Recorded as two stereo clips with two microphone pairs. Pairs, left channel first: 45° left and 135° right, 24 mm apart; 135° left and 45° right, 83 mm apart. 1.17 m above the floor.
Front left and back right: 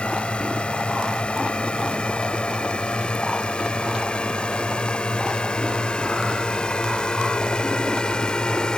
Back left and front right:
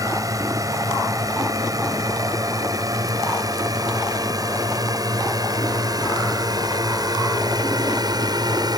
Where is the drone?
Straight ahead; by 8.8 s 10° right.